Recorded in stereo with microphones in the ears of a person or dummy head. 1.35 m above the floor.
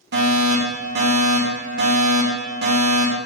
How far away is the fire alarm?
About 2.5 m.